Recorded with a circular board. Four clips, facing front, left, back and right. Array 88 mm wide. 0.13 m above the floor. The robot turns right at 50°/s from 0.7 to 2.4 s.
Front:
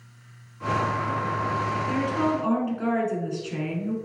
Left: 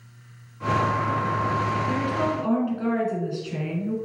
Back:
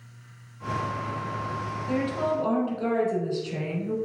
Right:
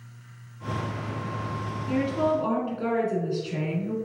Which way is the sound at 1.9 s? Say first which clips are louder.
Even, even; 25° right.